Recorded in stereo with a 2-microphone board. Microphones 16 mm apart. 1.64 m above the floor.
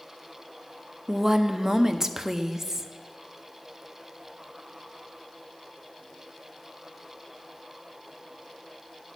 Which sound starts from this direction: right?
A woman speaking, at 1.1 s.